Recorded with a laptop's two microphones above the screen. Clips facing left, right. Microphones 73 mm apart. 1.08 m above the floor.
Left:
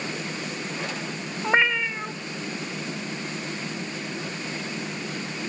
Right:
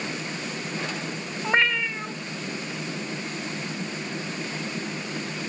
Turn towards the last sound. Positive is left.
turn(degrees=10)  # may be behind; listen again after turning